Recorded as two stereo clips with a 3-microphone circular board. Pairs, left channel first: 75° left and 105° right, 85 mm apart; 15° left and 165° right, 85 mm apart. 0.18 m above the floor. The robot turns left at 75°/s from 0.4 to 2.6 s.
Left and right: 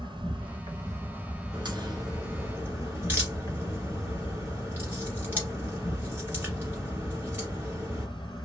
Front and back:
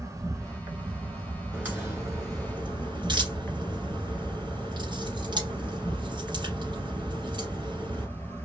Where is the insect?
115° right, 0.8 m; by 8.4 s 80° left, 0.8 m.